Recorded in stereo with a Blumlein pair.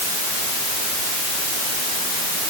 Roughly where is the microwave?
I don't hear a microwave.